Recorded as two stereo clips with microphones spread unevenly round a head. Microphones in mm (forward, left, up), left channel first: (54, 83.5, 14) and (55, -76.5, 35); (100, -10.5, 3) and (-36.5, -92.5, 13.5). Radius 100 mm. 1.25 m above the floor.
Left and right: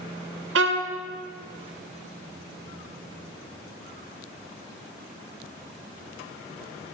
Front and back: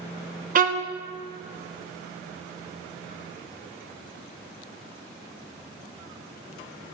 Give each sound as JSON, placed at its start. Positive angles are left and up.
{"t": 0.6, "sound": "a violin", "azimuth_deg": -115, "distance_m": 0.9}